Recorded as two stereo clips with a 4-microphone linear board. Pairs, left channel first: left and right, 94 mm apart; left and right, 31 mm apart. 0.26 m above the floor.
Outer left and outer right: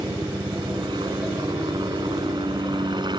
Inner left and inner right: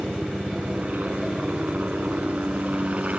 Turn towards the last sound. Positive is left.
turn(degrees=-55)  # may be behind; listen again after turning